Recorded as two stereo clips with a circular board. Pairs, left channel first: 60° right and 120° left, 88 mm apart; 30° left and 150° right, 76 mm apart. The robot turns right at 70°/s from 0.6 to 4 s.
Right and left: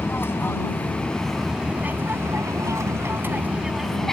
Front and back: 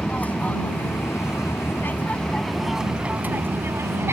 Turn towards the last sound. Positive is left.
turn(degrees=-145)